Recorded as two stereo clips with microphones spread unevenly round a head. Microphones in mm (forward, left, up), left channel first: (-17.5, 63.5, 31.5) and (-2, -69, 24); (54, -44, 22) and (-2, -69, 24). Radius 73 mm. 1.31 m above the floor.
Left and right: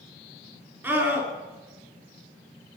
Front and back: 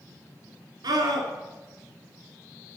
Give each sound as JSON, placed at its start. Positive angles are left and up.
{"t": 0.8, "sound": "a scream", "azimuth_deg": -155, "distance_m": 3.5}